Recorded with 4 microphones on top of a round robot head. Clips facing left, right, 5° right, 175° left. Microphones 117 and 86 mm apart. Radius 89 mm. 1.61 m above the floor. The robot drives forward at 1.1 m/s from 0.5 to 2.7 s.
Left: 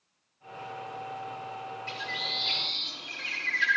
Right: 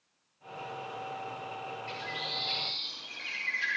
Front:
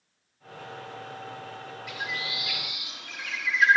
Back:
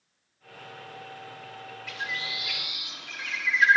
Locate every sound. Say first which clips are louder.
1.9 s a bird: left 1 dB, even; 65° left, 4.5 m; by 3.8 s 80° left, 4 m